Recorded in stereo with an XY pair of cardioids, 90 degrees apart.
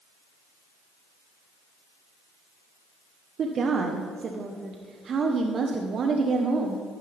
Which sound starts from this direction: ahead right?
A woman speaking, at 3.4 s.